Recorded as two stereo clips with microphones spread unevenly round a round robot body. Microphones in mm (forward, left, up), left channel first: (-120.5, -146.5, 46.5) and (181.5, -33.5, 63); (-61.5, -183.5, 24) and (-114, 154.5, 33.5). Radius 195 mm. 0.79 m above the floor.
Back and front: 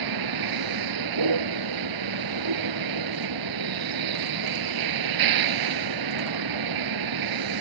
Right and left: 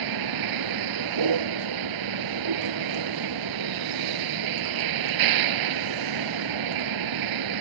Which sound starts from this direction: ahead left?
A vehicle, at 0.0 s.